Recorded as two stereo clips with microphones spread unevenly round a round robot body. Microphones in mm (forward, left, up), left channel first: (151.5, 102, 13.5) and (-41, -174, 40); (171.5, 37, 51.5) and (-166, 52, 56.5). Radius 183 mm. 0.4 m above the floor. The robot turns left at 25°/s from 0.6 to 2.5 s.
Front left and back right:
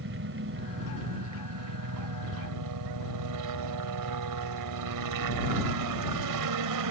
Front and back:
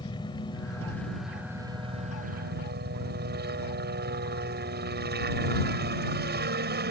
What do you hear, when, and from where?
0.0 s a helicopter: 80° right; by 6.9 s 125° right